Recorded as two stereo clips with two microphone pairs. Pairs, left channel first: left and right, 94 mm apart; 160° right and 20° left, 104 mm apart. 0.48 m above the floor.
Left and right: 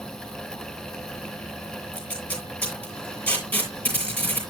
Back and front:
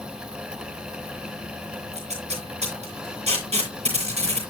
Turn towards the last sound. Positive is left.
turn(degrees=20)